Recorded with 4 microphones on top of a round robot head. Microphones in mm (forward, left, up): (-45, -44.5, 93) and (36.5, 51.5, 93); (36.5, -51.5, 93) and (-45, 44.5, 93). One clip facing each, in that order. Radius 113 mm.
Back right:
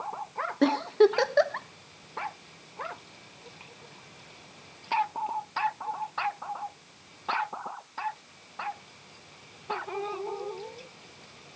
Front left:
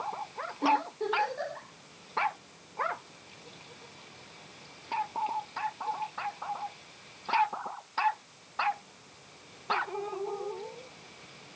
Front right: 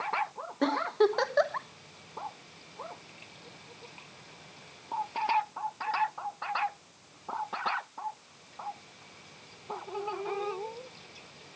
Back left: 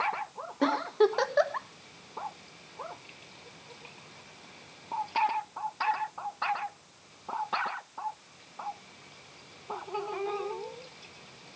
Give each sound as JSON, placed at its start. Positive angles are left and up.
{"t": 0.6, "sound": "a giggle", "azimuth_deg": -140, "distance_m": 1.2}